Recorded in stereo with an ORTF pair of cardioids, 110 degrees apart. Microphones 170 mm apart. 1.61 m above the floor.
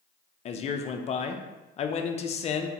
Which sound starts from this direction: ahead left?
A man speaking, at 0.5 s.